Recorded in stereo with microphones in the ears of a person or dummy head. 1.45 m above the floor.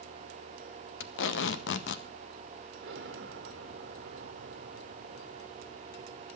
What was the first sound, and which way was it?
Tape being pulled, 85° left.